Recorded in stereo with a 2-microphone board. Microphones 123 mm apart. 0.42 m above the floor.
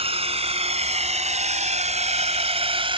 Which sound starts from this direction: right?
A drone, at 0.0 s.